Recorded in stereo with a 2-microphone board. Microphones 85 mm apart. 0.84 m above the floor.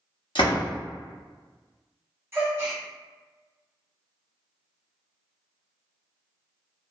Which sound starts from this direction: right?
A gasp, at 2.3 s.